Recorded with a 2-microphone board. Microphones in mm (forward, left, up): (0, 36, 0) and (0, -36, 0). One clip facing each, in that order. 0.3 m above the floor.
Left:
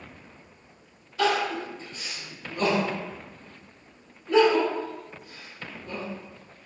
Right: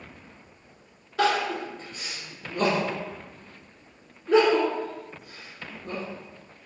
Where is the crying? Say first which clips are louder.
Right 1 dB; 65° right (ahead or behind), 1.9 m.